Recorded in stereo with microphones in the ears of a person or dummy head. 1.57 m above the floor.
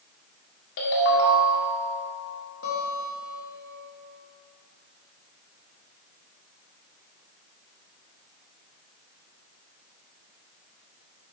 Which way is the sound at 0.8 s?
60° left (ahead or behind).